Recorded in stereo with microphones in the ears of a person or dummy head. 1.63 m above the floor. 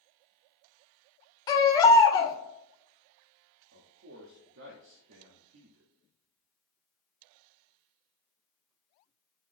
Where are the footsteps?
I don't hear footsteps.